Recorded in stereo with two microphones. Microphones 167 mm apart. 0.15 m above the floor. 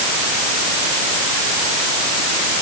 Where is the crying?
I don't hear crying.